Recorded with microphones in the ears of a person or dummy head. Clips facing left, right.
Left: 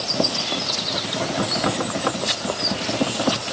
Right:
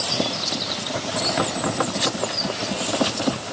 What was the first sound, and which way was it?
Only background noise.